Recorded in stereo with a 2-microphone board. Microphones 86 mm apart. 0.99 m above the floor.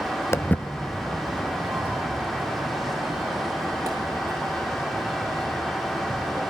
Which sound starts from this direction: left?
Footsteps, at 0.3 s.